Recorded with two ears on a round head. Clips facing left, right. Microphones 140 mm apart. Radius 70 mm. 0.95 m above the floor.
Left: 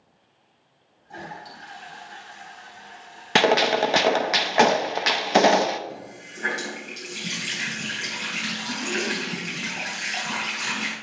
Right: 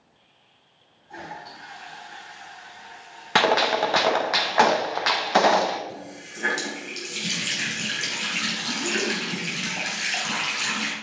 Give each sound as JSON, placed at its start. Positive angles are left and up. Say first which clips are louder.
{"t": 1.1, "sound": "a toilet flushing", "louder": "even", "side_deg": 35, "distance_m": 3.0}
{"t": 3.4, "sound": "a gunshot", "louder": "left 1 dB", "side_deg": 25, "distance_m": 0.5}
{"t": 5.9, "sound": "a running tap", "louder": "right 1 dB", "side_deg": -35, "distance_m": 4.0}